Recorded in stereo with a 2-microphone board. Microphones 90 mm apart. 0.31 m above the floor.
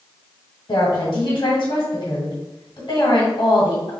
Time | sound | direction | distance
0.7 | a woman speaking | 55° left (ahead or behind) | 1.7 m